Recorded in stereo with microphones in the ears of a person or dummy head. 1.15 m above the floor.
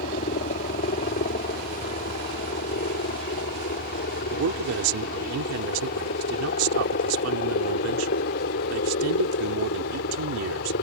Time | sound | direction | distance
0.0 | a helicopter | 40° left (ahead or behind) | ?
4.3 | a man speaking | 75° right (ahead or behind) | ?